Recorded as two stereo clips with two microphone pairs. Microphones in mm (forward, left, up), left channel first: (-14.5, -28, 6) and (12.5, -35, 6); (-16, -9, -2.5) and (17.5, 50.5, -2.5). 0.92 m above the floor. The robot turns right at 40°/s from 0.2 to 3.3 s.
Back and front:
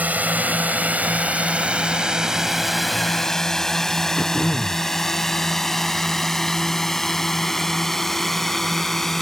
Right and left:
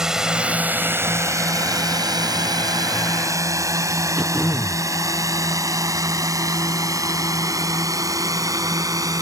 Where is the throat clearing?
140° left.